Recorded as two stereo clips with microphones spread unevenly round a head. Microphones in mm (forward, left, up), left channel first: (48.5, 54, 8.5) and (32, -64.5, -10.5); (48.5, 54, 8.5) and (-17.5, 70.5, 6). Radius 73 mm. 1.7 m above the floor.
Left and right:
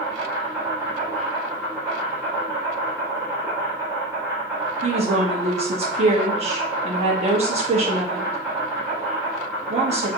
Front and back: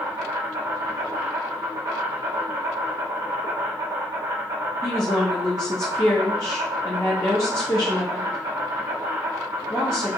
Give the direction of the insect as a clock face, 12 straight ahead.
6 o'clock.